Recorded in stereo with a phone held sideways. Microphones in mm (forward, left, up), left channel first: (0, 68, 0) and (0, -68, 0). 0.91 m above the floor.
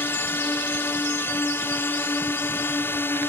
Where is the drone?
15° left (ahead or behind).